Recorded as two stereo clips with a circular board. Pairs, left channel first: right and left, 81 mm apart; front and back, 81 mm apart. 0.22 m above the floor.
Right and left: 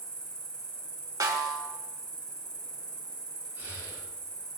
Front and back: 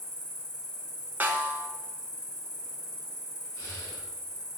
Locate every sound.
0.0 s an insect: 30° right, 1.3 m
1.2 s a snare drum: 115° left, 0.6 m
3.5 s breathing: 35° left, 1.9 m